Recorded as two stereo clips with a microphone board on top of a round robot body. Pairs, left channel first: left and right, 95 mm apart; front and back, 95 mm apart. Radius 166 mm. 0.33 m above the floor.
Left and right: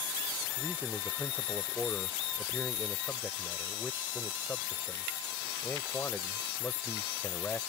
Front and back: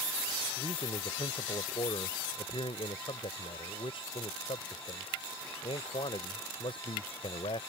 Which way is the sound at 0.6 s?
20° left.